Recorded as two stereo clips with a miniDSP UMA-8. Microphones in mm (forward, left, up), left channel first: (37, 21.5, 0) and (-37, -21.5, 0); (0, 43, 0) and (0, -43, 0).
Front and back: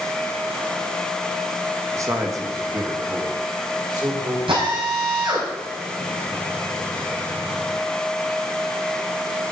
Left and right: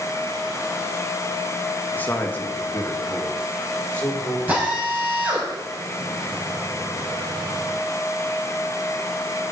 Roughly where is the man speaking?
Behind left.